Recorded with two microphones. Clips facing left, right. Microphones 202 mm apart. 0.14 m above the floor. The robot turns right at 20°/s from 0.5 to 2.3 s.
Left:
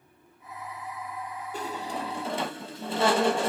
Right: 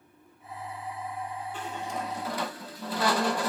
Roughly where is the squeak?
Left.